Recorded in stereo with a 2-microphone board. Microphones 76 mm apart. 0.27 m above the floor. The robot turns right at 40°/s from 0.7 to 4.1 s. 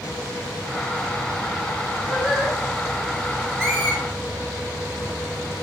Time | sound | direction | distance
2.1 | singing | 5° right (ahead or behind) | 4.5 m
3.6 | a squeak | 35° right (ahead or behind) | 4 m